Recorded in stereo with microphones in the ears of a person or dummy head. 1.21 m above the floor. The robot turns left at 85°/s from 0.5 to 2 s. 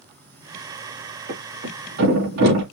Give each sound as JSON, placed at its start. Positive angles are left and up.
{"t": 1.3, "sound": "a thud", "side_deg": -60, "distance_m": 3.5}